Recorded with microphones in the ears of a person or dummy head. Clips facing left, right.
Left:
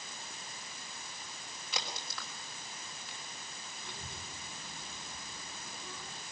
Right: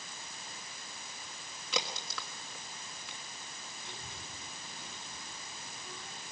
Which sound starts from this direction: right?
A crack, at 1.7 s.